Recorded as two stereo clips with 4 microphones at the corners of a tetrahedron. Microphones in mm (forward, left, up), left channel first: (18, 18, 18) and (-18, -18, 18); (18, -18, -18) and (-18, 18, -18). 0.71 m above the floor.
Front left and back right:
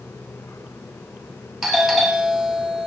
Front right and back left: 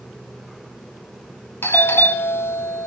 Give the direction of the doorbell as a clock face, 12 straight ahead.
2 o'clock.